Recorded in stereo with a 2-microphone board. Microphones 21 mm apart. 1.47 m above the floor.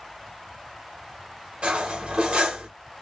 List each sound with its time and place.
1.6 s cutlery clinking: 60° right (ahead or behind), 1.2 m